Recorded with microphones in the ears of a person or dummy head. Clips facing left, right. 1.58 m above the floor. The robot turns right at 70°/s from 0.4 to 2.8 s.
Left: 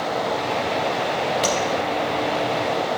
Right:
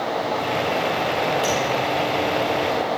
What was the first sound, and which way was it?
Tapping, 25° left (ahead or behind).